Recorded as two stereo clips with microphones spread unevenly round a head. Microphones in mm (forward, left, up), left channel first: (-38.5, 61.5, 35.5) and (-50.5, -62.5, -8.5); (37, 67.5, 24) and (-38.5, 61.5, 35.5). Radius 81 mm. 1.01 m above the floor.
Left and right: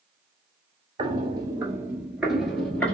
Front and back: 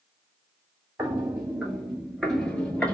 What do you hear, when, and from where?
1.0 s footsteps: 145° right, 1.1 m; by 2.9 s 85° left, 1.1 m